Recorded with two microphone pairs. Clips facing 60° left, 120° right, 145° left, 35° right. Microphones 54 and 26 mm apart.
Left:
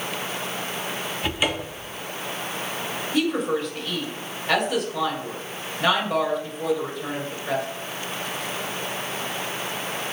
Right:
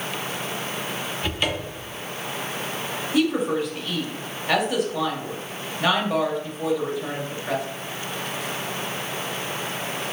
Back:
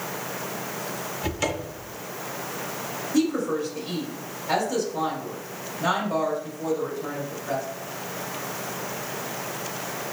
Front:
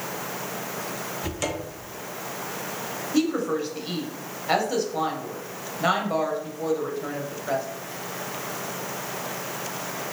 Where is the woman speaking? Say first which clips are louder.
Right 2 dB, even; 35° right, 1.1 m.